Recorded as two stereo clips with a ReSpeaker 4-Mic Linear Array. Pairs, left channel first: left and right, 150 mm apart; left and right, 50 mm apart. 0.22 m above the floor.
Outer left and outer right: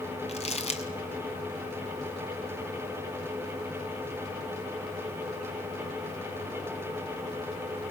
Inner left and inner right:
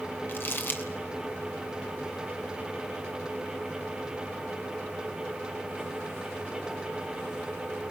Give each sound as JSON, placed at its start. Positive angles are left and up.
{"t": 0.3, "sound": "crumpling", "side_deg": 45, "distance_m": 1.8}